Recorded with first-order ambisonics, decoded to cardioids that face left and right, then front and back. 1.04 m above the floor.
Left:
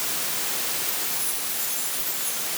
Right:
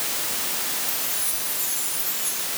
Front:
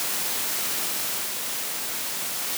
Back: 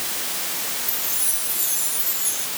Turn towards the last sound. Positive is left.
turn(degrees=-175)